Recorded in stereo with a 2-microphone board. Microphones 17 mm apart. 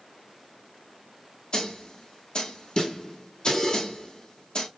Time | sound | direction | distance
1.5 | a snare drum | 55° left (ahead or behind) | 1.4 m